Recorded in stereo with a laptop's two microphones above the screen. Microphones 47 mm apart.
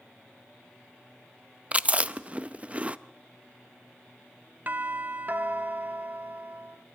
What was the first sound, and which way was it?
Chewing, 30° right (ahead or behind).